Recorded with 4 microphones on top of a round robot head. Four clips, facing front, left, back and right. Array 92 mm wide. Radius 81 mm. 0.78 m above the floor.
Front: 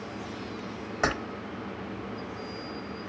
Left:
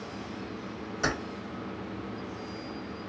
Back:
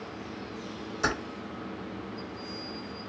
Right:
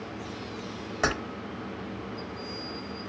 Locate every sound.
1.0 s keys jangling: 40° right, 1.2 m